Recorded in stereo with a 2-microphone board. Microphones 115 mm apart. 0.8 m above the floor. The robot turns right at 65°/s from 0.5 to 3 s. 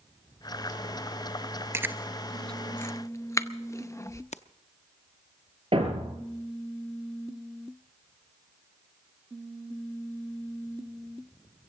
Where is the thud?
55° right (ahead or behind), 4 m.